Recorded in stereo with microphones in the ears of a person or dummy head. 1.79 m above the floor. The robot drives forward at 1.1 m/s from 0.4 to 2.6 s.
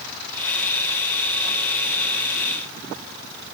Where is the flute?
No flute in this recording.